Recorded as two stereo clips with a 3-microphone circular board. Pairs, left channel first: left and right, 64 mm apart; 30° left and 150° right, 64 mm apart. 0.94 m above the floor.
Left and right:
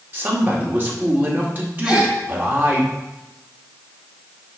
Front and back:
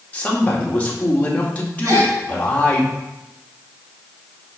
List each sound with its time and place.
0.1 s a man speaking: 35° right, 2 m
1.8 s a gasp: 170° right, 2 m